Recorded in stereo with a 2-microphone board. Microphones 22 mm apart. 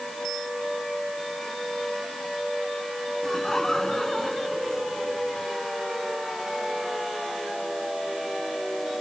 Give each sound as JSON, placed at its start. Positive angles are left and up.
{"t": 3.2, "sound": "laughter", "side_deg": 15}